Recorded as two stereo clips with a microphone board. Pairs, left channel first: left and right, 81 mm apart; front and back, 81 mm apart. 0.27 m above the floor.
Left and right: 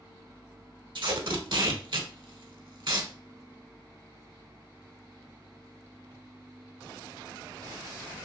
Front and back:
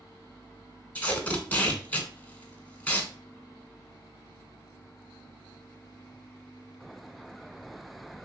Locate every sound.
0.9 s tape being pulled: 70° right, 0.7 m